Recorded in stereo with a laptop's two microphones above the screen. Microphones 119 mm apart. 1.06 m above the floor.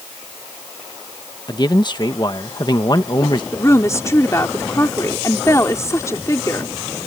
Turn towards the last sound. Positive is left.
turn(degrees=25)  # may be behind; listen again after turning